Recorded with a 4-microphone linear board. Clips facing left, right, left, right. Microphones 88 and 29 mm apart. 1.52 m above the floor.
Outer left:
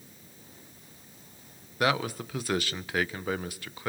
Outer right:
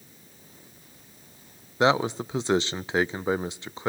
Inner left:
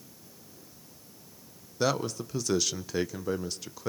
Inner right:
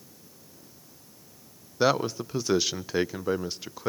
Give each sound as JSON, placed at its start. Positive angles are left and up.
{"t": 1.8, "sound": "a man speaking", "side_deg": -25, "distance_m": 0.7}